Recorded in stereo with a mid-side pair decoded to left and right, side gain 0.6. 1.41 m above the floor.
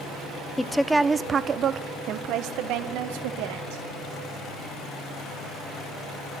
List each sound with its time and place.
0.6 s a woman speaking: 15° left, 0.7 m; by 3.8 s 80° right, 2 m